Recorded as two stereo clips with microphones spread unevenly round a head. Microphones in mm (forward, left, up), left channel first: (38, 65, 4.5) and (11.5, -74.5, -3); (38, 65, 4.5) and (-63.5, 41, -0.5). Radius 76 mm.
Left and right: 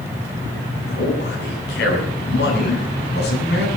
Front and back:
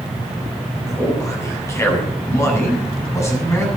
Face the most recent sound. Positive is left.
turn(degrees=75)